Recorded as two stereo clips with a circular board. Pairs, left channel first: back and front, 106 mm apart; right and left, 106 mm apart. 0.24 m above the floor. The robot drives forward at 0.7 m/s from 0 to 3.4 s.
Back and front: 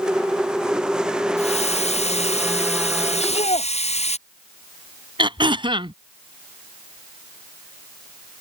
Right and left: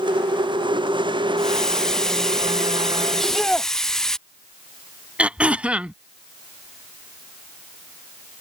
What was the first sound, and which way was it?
A hiss, 175° right.